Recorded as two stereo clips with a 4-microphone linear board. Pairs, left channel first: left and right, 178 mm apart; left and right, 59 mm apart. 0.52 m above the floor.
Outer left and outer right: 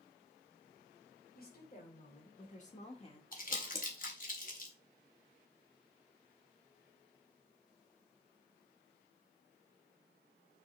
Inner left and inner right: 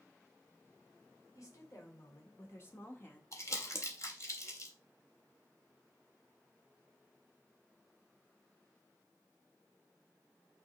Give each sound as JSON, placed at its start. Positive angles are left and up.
{"t": 1.4, "sound": "a woman speaking", "side_deg": 55, "distance_m": 2.0}
{"t": 3.3, "sound": "crumpling", "side_deg": 50, "distance_m": 1.8}